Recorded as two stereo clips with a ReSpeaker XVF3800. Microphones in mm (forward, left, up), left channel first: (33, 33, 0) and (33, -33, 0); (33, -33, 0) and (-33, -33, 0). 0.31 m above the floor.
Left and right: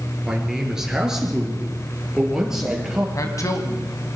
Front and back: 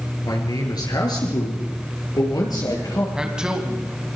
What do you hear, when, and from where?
0.2 s a man speaking: 5° right, 5 m
3.1 s a man speaking: 105° left, 2.5 m